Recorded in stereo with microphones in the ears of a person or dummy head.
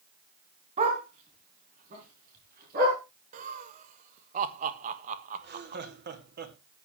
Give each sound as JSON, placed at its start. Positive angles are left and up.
{"t": 0.8, "sound": "a dog barking", "side_deg": -35, "distance_m": 4.0}
{"t": 3.3, "sound": "laughter", "side_deg": -40, "distance_m": 1.4}
{"t": 5.4, "sound": "laughter", "side_deg": -50, "distance_m": 1.9}